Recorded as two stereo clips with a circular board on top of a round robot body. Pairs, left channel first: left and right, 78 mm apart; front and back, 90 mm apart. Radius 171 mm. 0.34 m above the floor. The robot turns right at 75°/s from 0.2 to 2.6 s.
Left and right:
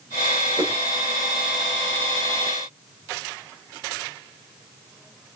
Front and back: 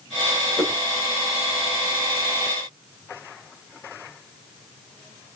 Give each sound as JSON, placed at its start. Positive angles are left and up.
{"t": 0.6, "sound": "a whoosh", "azimuth_deg": -60, "distance_m": 1.8}